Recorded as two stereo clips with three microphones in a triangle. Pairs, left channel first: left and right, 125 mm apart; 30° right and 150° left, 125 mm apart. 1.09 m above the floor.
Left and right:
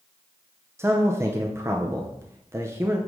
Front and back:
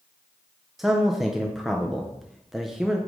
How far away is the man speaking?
About 0.6 m.